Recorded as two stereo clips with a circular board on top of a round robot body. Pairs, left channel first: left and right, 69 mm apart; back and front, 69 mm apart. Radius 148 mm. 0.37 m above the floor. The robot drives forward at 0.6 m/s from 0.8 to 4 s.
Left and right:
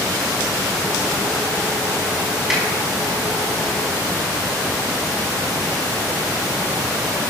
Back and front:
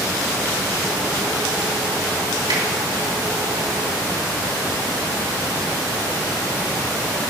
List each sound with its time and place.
2.5 s a finger snap: 10° right, 4.5 m